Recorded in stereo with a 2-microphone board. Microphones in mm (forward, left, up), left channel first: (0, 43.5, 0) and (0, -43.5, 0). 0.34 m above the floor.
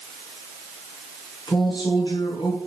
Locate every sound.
1.5 s a man speaking: 60° left (ahead or behind), 4.5 m